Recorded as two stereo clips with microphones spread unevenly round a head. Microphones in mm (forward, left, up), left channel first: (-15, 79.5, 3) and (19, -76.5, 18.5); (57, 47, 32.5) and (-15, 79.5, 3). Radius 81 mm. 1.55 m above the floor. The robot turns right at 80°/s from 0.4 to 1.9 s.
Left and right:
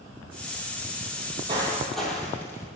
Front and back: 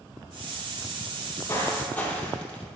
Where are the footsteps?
80° right, 2 m; by 2.6 s 25° left, 2.5 m.